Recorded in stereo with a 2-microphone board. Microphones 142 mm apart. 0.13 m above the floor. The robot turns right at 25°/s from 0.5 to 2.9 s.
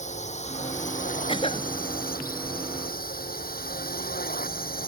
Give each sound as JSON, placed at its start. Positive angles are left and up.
{"t": 0.0, "sound": "a drone", "side_deg": 50}
{"t": 1.3, "sound": "a cough", "side_deg": 35}